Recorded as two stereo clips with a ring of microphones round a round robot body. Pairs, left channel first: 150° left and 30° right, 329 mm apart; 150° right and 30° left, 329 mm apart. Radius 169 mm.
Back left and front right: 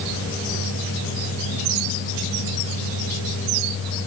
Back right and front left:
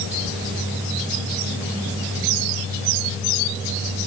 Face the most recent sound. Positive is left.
No sound to turn to.